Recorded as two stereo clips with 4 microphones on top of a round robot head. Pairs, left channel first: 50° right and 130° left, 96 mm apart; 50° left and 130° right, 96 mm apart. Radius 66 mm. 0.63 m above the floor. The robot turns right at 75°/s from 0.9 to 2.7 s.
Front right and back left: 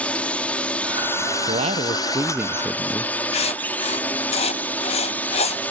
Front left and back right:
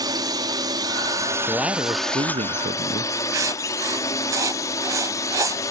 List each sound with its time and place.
0.0 s a drone: 120° right; by 5.7 s 15° left
1.5 s a man speaking: 135° left; by 3.1 s 135° right
3.3 s writing: 70° right